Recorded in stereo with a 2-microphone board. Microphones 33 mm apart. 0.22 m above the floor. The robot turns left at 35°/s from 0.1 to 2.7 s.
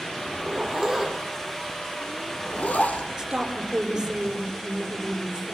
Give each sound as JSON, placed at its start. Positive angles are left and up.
{"t": 0.3, "sound": "a zipper", "side_deg": -30, "distance_m": 5.0}
{"t": 3.2, "sound": "a woman speaking", "side_deg": -15, "distance_m": 5.0}